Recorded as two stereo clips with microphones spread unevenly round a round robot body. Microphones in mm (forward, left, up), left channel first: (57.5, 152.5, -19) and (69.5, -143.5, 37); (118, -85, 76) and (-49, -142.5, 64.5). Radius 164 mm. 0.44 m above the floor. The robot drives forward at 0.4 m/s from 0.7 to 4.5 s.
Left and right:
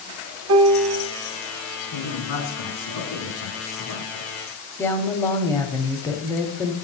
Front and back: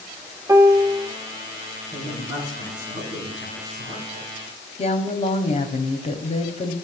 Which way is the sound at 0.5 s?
100° right.